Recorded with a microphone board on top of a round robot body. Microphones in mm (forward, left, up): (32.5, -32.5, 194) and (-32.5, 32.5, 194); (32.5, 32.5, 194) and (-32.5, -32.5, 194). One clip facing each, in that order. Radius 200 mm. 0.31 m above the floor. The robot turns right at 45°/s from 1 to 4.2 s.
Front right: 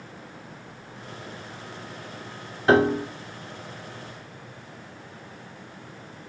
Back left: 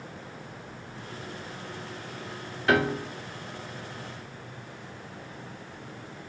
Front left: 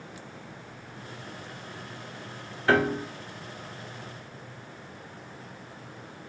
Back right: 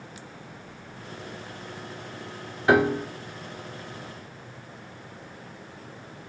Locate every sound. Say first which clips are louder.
2.7 s a piano: front right 5 dB, back right 3 dB; 70° right, 1.4 m; by 3.1 s 55° right, 1.4 m